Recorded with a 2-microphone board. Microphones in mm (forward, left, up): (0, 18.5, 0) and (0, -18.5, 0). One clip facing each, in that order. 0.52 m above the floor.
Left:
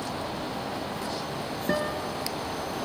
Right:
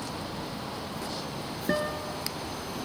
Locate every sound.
1.7 s a guitar: centre (ahead or behind)